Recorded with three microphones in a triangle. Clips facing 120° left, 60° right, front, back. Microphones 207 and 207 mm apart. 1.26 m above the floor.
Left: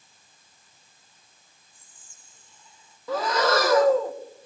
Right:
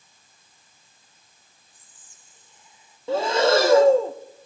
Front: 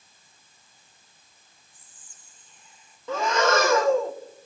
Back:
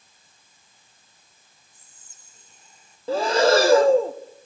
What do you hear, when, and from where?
1.7 s whispering: 130° right, 1.5 m
3.1 s breathing: 120° right, 0.7 m